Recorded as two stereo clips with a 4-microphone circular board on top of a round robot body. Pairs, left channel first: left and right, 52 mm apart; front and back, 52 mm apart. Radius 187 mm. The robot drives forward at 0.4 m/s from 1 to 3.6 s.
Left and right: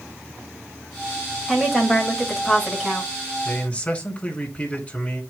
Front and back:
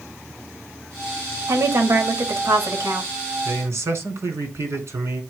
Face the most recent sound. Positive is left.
turn(degrees=155)